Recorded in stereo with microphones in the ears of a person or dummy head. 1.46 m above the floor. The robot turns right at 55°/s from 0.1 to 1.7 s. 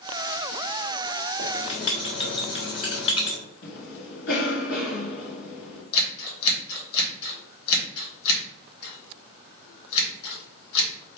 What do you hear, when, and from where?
1.4 s writing: 15° left (ahead or behind), 1.8 m; by 3.4 s 30° left (ahead or behind), 1.8 m
3.6 s a cough: 65° left (ahead or behind), 2.5 m
5.9 s scissors: 60° left (ahead or behind), 2.5 m